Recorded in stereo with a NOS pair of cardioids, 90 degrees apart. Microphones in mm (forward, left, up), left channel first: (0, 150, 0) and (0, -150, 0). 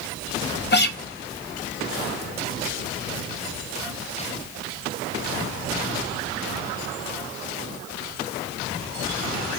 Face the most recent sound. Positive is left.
turn(degrees=35)